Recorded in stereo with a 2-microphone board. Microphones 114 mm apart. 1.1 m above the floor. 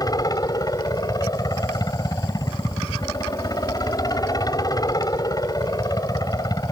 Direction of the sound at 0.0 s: 35° left (ahead or behind).